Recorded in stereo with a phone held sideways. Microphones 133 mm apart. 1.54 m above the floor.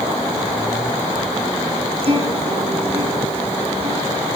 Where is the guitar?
50° right (ahead or behind), 8 m.